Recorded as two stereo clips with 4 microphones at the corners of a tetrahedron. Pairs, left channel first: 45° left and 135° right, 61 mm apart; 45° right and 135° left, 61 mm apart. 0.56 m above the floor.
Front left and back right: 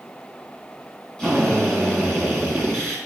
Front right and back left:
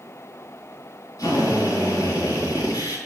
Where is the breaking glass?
No breaking glass in this recording.